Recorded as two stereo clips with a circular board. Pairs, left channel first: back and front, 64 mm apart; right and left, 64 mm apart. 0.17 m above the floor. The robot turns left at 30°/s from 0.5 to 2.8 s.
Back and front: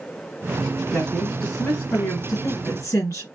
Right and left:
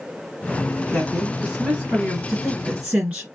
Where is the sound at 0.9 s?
110° right, 1.8 m; by 2.2 s 150° right, 1.8 m.